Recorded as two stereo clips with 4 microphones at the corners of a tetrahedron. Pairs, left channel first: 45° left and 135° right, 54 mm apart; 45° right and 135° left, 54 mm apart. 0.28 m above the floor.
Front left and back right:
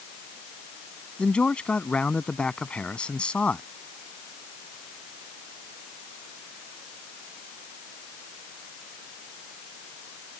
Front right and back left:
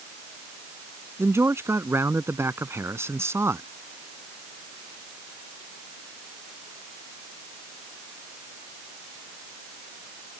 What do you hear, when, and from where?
1.2 s a man speaking: 115° left